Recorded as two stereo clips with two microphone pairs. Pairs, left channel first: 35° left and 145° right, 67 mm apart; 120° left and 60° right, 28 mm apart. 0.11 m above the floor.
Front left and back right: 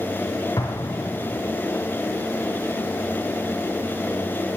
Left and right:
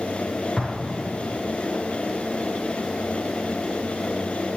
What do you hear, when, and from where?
0.6 s an explosion: 50° left, 5 m